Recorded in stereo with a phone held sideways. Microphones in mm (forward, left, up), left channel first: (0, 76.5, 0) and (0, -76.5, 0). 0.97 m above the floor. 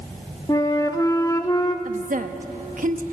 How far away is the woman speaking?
About 1.1 m.